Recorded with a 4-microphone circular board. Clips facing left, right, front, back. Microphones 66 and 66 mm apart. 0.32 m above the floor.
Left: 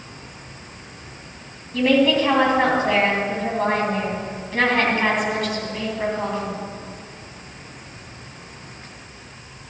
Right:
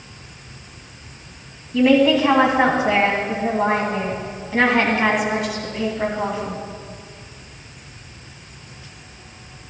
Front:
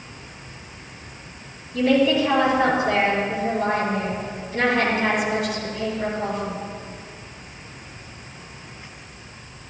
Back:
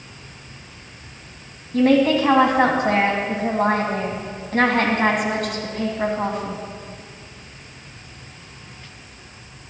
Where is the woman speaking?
170° right, 2.5 m.